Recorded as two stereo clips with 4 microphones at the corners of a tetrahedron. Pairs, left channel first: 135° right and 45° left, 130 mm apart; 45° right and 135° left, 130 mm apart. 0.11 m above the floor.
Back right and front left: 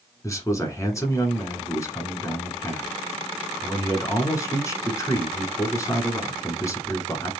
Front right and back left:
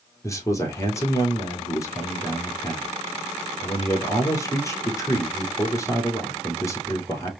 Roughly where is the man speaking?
Right.